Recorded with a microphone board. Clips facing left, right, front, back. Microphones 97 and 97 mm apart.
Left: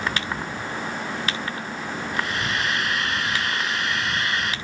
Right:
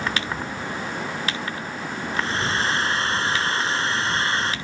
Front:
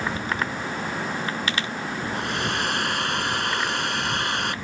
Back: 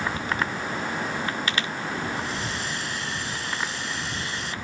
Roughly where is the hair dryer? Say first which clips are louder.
Right 3 dB, front 3 dB; ahead right.